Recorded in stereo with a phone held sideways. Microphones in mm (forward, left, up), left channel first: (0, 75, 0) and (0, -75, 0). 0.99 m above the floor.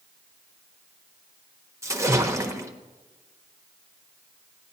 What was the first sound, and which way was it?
A splash, 20° right (ahead or behind).